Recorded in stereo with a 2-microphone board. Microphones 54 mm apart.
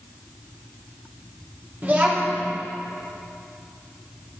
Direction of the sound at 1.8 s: 35° right (ahead or behind).